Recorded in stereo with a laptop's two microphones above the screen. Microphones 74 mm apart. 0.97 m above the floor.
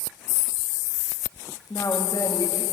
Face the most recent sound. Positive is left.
turn(degrees=50)  # may be behind; listen again after turning